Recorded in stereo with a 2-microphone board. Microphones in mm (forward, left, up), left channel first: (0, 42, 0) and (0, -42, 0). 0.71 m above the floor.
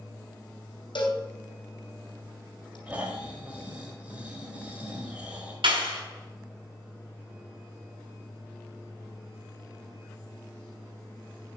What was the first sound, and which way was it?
A cowbell, 70° left (ahead or behind).